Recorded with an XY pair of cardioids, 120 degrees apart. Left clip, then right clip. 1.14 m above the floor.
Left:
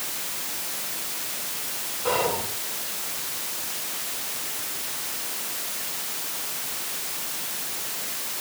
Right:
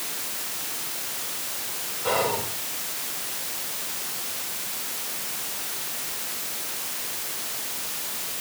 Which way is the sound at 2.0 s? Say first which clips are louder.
Even; straight ahead.